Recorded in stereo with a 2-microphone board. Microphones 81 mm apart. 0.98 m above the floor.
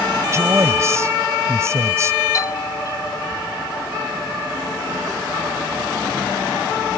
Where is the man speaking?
35° right (ahead or behind).